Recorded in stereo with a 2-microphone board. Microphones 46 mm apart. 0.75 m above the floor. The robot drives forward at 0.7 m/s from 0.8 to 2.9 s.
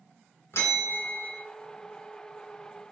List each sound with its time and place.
0.5 s a bell: 70° left (ahead or behind), 1.7 m; by 1.4 s 60° left (ahead or behind), 1.8 m